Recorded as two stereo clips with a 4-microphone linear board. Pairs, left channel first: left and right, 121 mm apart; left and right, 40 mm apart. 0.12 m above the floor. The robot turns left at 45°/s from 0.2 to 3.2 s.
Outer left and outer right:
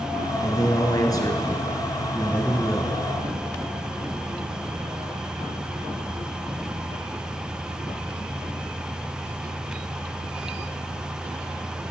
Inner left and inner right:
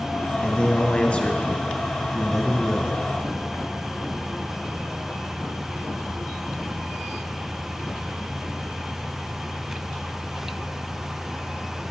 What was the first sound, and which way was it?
A man speaking, 110° left.